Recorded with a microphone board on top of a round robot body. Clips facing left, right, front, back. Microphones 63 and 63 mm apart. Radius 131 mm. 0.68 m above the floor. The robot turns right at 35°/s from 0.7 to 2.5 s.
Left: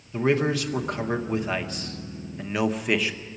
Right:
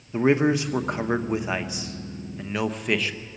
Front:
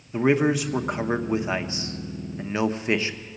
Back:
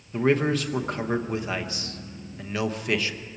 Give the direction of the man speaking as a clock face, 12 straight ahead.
2 o'clock.